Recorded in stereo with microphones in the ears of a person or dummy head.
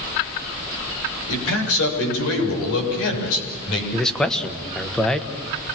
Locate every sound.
1.3 s a man speaking: 85° left, 7 m; by 3.8 s 70° left (ahead or behind), 6.5 m
3.9 s a man speaking: 5° left (ahead or behind), 1.4 m